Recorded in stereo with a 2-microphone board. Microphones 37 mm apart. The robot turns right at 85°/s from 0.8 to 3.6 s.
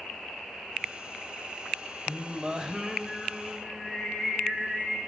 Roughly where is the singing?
Centre.